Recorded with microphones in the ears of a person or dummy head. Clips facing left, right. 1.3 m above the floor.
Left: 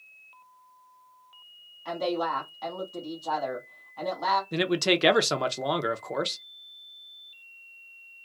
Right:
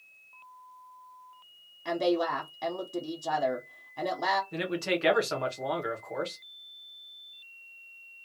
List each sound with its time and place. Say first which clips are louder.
1.9 s a woman speaking: right 2 dB; 40° right (ahead or behind), 1.0 m
4.5 s a man speaking: left 5 dB; 55° left (ahead or behind), 0.6 m